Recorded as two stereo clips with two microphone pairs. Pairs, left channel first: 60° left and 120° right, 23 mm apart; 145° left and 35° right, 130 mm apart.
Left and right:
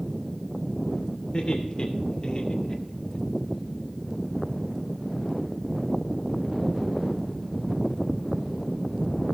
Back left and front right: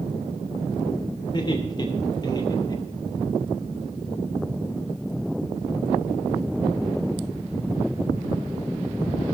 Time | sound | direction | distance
1.3 | laughter | 95° left | 2.5 m